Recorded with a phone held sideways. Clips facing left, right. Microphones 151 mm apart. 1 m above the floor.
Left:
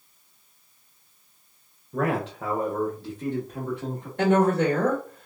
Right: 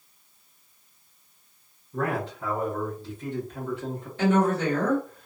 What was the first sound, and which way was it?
A man speaking, 70° left (ahead or behind).